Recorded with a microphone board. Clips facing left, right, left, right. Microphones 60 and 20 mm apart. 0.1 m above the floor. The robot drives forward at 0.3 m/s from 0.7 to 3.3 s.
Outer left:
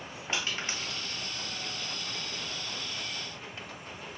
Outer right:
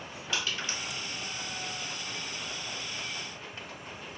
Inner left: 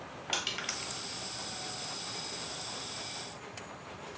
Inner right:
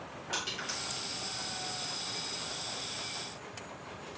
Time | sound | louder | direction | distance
0.3 | crushing | even, inner left 2 dB | 35° left (ahead or behind) | 2.0 m